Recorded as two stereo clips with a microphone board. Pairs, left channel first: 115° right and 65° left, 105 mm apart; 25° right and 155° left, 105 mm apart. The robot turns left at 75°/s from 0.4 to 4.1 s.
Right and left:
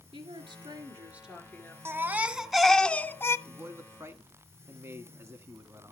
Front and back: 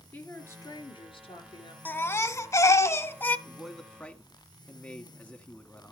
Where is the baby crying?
30° left, 0.6 m; by 3.4 s 80° right, 0.6 m.